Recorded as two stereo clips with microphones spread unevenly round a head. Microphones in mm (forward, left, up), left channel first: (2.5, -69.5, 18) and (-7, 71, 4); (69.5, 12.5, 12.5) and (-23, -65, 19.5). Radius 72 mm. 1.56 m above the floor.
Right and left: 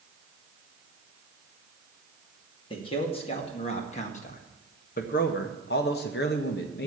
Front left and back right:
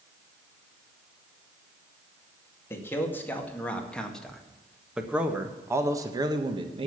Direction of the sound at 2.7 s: 30° right.